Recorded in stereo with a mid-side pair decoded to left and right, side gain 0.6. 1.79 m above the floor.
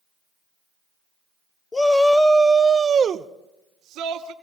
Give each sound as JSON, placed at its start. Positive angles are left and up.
{"t": 1.7, "sound": "a shout", "azimuth_deg": 20, "distance_m": 1.0}